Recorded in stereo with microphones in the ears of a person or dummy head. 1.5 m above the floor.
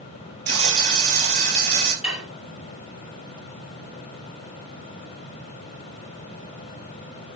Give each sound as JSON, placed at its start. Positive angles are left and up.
{"t": 0.5, "sound": "frying", "side_deg": -50, "distance_m": 4.0}
{"t": 2.0, "sound": "dishes clattering", "side_deg": -5, "distance_m": 4.0}